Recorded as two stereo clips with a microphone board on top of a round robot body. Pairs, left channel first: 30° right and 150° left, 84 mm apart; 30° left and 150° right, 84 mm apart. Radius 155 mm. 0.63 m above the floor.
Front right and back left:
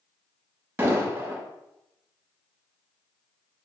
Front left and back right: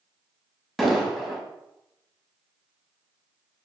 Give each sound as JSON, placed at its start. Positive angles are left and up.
{"t": 0.8, "sound": "an explosion", "azimuth_deg": 115, "distance_m": 1.2}